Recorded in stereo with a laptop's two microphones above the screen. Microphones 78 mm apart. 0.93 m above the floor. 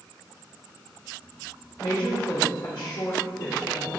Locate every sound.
1.8 s a woman speaking: 80° left, 2.5 m